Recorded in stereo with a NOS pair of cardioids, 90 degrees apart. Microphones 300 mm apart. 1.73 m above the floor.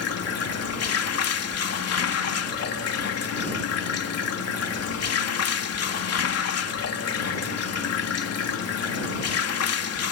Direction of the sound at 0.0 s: 55° left.